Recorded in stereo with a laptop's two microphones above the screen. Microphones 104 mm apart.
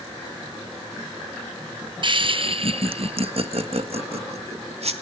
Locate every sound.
2.0 s laughter: 45° right (ahead or behind), 1.0 m; by 4.9 s 65° right (ahead or behind), 2.5 m